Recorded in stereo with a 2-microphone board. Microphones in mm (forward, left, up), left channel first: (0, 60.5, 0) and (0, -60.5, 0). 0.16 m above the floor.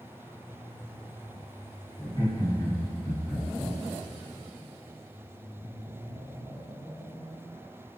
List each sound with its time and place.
2.0 s laughter: 35° left (ahead or behind), 1.4 m; by 3.7 s 20° right (ahead or behind), 1.3 m